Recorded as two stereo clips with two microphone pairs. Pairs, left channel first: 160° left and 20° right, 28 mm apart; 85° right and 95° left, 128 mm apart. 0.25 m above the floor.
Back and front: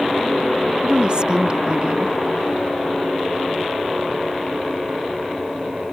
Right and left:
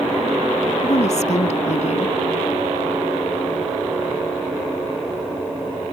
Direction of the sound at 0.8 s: 70° right.